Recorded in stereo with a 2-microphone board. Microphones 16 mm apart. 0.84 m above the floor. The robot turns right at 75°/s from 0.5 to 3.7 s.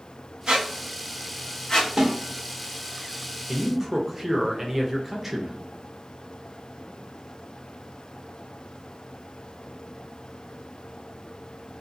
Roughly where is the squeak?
Right.